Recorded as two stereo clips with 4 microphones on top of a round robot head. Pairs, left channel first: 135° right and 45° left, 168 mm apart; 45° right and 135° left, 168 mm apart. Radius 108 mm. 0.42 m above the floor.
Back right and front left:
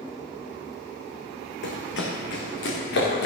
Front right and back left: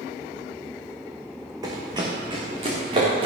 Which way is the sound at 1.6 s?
155° right.